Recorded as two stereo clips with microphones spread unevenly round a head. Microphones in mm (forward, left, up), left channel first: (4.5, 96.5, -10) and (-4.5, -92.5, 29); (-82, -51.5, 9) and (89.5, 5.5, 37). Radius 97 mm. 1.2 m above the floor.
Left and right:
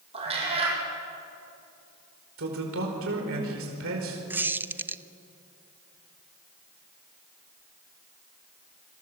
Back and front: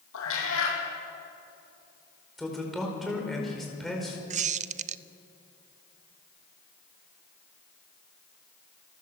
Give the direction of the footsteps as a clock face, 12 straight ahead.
I don't hear footsteps.